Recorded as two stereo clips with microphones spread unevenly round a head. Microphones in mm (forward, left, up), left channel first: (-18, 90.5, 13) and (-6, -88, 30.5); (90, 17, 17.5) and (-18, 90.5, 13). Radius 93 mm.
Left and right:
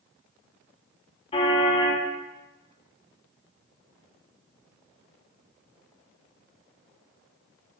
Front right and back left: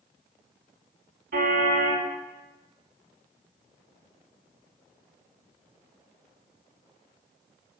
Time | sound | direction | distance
1.3 | a car horn | 155° left | 5.5 m